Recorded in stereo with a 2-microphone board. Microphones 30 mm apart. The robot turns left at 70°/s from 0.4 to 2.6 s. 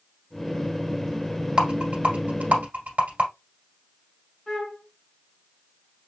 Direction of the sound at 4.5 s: 20° left (ahead or behind).